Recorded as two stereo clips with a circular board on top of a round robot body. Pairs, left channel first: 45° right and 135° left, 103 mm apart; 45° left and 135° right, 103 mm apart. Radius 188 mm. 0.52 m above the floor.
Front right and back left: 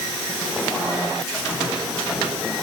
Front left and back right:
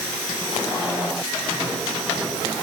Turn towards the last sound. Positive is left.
No sound to turn to.